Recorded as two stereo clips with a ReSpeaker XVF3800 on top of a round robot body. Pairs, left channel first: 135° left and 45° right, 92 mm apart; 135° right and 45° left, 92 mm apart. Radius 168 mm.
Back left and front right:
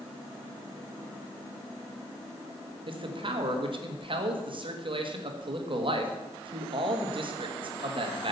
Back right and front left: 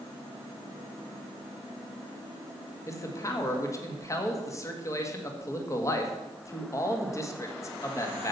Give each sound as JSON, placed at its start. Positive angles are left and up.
{"t": 2.9, "sound": "a man speaking", "azimuth_deg": -75, "distance_m": 1.7}